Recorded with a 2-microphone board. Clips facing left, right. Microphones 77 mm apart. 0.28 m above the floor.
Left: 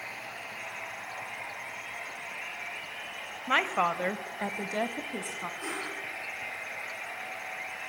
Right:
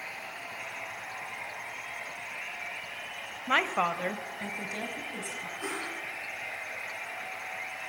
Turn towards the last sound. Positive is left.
turn(degrees=-15)  # may be behind; listen again after turning